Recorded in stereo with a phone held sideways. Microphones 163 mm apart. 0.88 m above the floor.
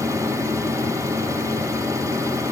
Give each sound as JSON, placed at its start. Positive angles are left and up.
{"t": 0.0, "sound": "a fan", "side_deg": -20, "distance_m": 0.8}